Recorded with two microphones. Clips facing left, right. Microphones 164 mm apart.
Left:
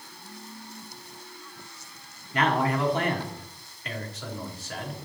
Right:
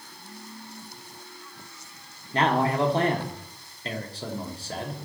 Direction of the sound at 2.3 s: 30° right (ahead or behind).